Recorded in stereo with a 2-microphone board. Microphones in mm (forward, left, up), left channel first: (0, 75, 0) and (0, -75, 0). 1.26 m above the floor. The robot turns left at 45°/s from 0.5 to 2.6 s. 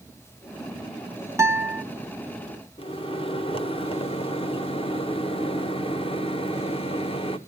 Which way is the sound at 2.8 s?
40° left (ahead or behind).